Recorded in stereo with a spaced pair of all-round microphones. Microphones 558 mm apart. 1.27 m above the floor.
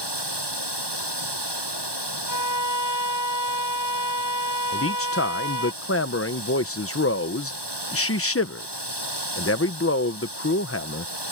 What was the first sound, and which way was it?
Running water, 45° right (ahead or behind).